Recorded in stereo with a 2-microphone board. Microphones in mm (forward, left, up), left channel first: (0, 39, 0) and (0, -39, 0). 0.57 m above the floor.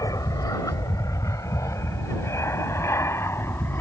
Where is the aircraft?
50° left (ahead or behind); by 3.8 s 30° left (ahead or behind).